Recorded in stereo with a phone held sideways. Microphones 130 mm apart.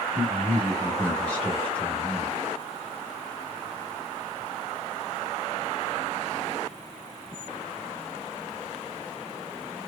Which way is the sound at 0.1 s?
10° left (ahead or behind).